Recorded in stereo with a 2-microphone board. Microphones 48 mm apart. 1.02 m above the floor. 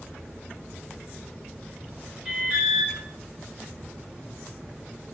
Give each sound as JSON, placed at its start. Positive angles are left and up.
{"t": 2.2, "sound": "an alarm", "side_deg": -5, "distance_m": 5.0}